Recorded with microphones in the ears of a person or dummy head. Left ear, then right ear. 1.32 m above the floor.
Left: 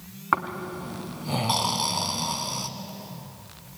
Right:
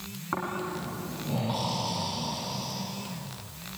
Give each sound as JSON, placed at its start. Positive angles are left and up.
{"t": 0.3, "sound": "snoring", "side_deg": 55, "distance_m": 2.5}